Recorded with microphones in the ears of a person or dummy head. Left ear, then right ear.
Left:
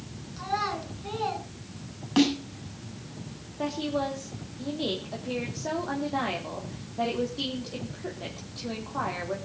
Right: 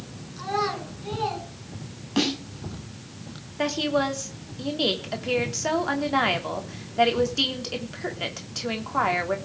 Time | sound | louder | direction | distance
0.4 | a child speaking | right 3 dB | 10° left (ahead or behind) | 8 m
2.2 | a snare drum | left 1 dB | 20° left (ahead or behind) | 7.5 m
3.6 | a woman speaking | right 6 dB | 65° right (ahead or behind) | 3 m